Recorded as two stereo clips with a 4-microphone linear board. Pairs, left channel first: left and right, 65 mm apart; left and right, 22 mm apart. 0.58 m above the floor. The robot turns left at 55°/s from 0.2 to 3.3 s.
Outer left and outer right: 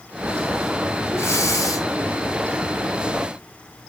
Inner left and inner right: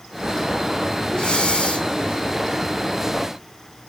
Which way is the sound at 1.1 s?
135° left.